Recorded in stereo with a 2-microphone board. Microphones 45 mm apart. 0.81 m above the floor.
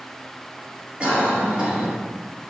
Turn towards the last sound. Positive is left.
turn(degrees=-25)  # may be behind; listen again after turning